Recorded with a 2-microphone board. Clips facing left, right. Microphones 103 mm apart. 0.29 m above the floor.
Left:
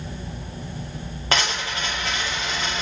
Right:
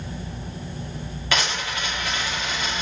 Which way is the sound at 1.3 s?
40° left (ahead or behind).